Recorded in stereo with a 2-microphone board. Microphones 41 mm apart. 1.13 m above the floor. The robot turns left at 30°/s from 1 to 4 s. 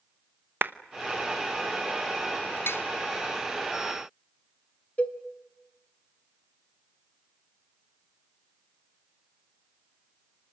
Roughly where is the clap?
Right.